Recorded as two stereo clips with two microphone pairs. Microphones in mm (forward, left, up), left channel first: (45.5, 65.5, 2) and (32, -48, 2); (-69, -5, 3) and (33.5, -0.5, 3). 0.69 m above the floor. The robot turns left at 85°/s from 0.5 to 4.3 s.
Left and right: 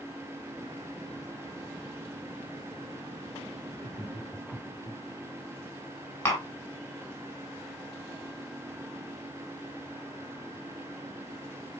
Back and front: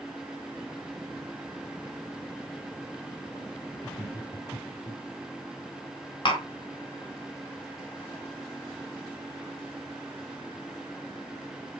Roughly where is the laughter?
Behind.